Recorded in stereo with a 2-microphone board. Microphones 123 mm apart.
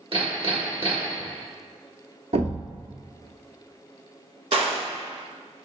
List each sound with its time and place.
0.1 s hammering: 50° right (ahead or behind), 1.2 m
2.3 s a thud: 70° right (ahead or behind), 0.8 m
4.5 s a gunshot: 55° right (ahead or behind), 0.9 m